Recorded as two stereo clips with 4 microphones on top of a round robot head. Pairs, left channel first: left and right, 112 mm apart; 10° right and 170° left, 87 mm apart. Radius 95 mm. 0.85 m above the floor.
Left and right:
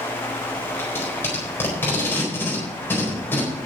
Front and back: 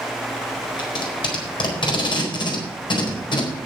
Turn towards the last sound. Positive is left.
turn(degrees=15)